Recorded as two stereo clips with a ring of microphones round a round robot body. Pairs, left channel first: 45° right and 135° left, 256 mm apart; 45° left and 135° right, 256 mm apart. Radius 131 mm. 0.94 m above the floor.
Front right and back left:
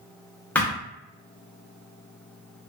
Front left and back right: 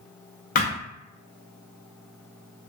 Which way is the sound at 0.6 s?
30° left.